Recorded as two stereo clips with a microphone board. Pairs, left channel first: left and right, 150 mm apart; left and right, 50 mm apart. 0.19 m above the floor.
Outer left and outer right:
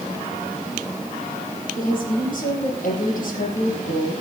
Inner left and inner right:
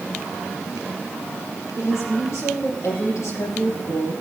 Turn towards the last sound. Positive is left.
turn(degrees=70)  # may be behind; listen again after turning